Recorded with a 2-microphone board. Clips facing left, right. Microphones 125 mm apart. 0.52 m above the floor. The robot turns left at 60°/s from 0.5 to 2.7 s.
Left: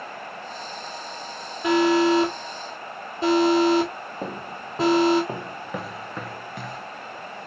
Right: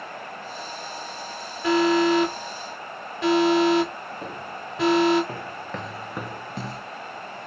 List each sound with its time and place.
1.6 s an alarm: 20° left (ahead or behind), 1.8 m; by 5.2 s 30° left (ahead or behind), 1.8 m
4.2 s footsteps: 35° left (ahead or behind), 1.2 m; by 6.8 s 40° right (ahead or behind), 0.6 m